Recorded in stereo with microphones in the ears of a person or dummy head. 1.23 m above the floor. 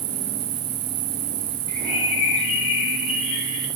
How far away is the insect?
About 4.5 m.